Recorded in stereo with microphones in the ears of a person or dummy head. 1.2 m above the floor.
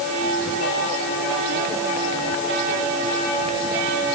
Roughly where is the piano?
No piano in this recording.